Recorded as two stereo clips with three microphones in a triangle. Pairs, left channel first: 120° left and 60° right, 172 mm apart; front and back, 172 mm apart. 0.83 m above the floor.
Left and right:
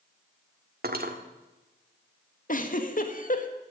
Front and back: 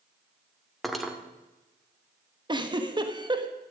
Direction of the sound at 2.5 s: 125° left.